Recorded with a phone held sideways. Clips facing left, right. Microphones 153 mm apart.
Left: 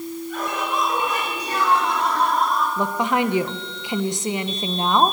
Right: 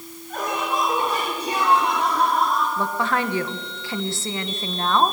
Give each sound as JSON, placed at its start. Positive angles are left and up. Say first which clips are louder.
{"t": 0.3, "sound": "laughter", "louder": "right 2 dB", "side_deg": -45, "distance_m": 5.0}
{"t": 2.8, "sound": "a woman speaking", "louder": "left 2 dB", "side_deg": 15, "distance_m": 1.1}